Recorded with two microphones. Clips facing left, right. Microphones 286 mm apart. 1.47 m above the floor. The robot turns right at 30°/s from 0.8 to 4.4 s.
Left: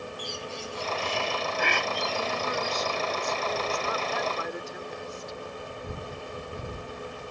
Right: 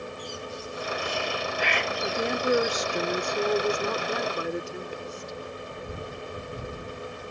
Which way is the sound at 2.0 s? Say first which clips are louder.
Right 6 dB; 110° right.